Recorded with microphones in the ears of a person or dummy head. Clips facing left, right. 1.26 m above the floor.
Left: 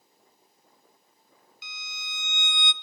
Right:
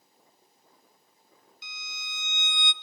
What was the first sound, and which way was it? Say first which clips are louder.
A violin: left 1 dB; 55° left (ahead or behind).